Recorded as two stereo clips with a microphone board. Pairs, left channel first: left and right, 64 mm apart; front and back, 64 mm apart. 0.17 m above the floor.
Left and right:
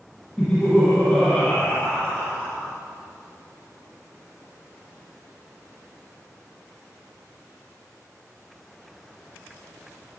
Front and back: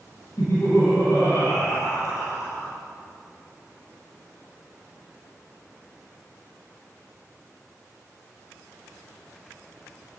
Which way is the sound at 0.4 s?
25° left.